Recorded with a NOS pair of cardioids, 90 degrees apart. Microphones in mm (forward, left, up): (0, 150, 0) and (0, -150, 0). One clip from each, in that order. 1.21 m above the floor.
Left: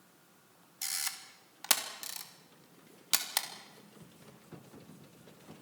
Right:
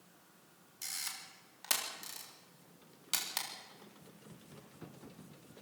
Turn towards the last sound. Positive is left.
turn(degrees=40)